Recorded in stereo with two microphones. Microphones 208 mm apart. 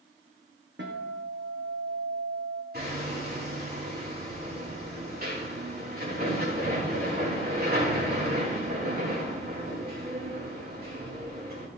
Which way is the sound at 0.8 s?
60° right (ahead or behind).